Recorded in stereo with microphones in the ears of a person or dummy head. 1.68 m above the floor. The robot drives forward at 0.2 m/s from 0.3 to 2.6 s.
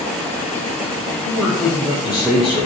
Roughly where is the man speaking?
Centre.